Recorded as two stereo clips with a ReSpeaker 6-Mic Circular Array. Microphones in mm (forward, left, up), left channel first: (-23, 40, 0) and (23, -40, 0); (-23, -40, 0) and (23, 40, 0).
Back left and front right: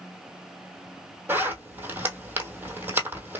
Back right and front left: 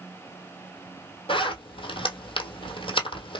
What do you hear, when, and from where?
1.3 s a zipper: 130° right, 1.1 m